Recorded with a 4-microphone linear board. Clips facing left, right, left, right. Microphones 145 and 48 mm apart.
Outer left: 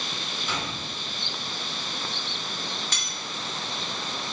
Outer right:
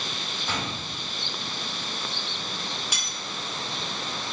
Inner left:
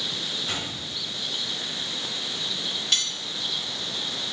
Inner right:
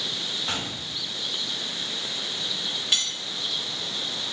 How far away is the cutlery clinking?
About 0.8 m.